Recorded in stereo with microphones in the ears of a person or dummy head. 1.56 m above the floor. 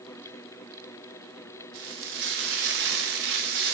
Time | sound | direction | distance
1.7 | frying | 50° right (ahead or behind) | 0.8 m